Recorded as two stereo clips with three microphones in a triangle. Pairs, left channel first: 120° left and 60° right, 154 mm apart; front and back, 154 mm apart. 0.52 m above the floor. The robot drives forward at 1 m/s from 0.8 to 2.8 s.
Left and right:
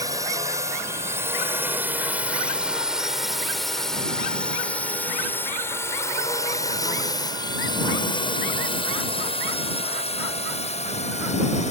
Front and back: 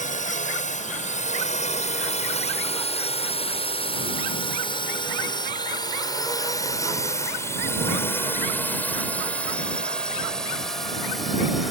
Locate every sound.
0.0 s a drone: 5° left; by 11.7 s 90° left